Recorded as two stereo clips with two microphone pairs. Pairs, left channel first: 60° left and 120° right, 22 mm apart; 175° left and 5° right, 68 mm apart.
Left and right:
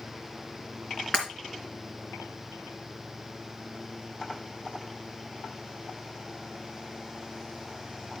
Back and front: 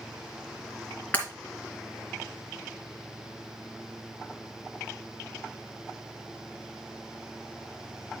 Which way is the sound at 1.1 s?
110° left.